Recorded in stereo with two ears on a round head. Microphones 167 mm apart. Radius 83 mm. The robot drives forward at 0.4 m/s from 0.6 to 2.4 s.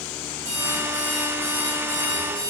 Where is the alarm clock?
15° right (ahead or behind), 6 m.